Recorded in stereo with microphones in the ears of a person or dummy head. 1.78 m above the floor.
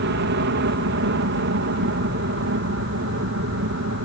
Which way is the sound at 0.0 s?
55° right (ahead or behind).